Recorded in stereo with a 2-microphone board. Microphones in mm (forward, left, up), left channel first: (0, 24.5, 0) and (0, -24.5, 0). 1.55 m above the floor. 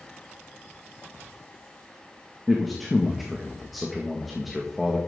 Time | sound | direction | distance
2.5 | a man speaking | centre (ahead or behind) | 1.7 m